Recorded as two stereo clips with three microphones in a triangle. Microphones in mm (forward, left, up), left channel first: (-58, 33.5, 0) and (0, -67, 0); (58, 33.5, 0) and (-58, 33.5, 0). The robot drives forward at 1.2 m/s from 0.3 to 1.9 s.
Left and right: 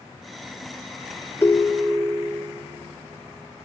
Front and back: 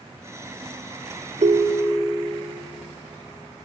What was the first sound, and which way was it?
A ringtone, 170° right.